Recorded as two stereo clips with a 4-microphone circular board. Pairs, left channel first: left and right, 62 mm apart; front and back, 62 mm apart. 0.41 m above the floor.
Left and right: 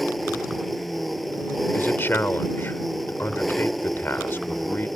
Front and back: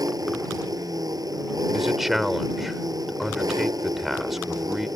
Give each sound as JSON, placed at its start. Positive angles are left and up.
{"t": 0.0, "sound": "an engine running", "azimuth_deg": 180}
{"t": 1.7, "sound": "a man speaking", "azimuth_deg": 95}